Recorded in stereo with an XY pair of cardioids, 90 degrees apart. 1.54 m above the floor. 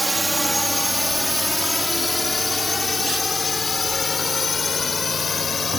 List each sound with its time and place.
0.0 s a drone: 10° right; by 5.8 s 45° left